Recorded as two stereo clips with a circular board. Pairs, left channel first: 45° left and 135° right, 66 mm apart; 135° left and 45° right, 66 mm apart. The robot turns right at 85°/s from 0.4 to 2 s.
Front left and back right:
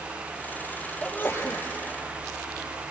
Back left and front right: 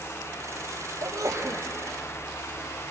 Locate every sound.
1.0 s a sneeze: 30° right, 3.5 m; by 1.6 s 20° left, 3.5 m